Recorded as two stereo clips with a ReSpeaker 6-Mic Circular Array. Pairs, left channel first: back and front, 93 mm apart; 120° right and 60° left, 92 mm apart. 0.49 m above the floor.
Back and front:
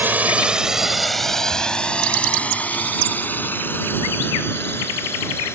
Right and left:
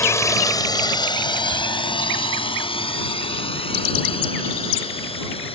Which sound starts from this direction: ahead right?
A drone, at 0.0 s.